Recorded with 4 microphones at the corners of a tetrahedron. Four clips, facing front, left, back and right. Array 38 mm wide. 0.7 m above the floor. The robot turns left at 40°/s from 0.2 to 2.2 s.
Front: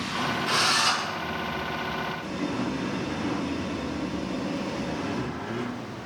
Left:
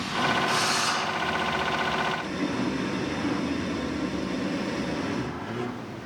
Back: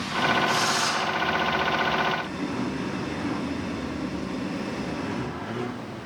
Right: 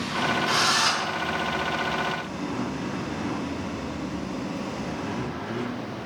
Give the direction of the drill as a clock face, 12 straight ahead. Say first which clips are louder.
Right 3 dB, front 1 dB; 2 o'clock.